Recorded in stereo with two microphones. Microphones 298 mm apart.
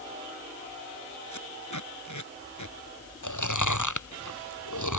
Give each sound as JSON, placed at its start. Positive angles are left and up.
{"t": 1.3, "sound": "tape being pulled", "side_deg": 80}
{"t": 3.2, "sound": "chewing", "side_deg": 85}